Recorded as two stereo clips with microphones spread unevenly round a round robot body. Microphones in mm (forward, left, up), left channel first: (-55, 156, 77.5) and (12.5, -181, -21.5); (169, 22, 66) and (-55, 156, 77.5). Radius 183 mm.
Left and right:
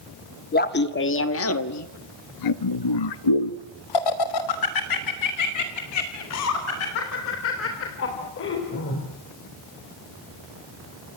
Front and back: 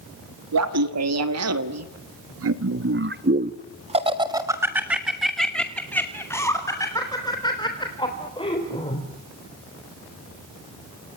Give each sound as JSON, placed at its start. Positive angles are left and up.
{"t": 0.5, "sound": "laughter", "azimuth_deg": 170, "distance_m": 2.0}